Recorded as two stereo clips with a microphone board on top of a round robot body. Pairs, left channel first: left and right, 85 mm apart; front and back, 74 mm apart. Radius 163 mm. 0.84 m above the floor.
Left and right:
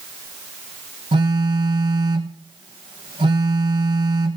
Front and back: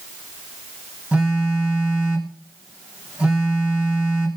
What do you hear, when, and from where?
1.1 s a phone buzzing: 110° right, 0.7 m